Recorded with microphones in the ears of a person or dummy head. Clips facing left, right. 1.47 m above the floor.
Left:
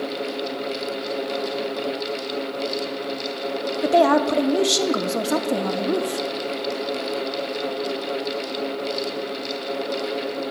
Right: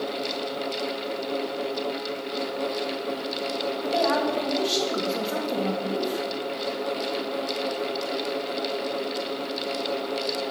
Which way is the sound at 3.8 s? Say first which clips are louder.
Left 8 dB; 75° left (ahead or behind).